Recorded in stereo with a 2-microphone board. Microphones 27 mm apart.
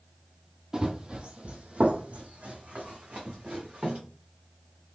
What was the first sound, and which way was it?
Running footsteps, 20° right (ahead or behind).